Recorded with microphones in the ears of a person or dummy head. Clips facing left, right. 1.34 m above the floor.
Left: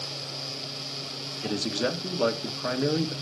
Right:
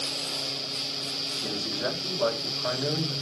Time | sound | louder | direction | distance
1.4 | a man speaking | left 4 dB | 35° left (ahead or behind) | 1.5 m